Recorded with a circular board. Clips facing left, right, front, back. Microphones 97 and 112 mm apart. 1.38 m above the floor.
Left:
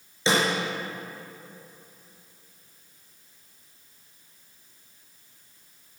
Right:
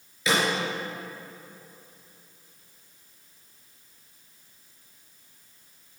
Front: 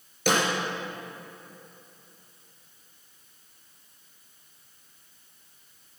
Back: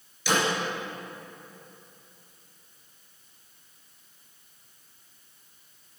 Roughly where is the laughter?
No laughter in this recording.